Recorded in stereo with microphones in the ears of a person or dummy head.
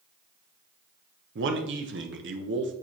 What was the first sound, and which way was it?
A man speaking, 60° right (ahead or behind).